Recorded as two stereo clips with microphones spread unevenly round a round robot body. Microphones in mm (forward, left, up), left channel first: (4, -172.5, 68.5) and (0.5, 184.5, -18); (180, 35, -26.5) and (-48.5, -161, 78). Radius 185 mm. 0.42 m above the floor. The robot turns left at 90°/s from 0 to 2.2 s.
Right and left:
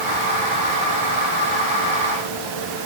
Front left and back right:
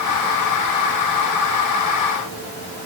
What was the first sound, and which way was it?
Only background noise.